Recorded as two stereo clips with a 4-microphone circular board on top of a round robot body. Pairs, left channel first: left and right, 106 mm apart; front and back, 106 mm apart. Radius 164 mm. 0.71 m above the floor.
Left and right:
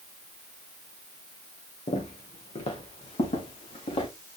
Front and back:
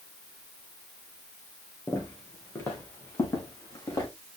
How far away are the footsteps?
About 3.5 m.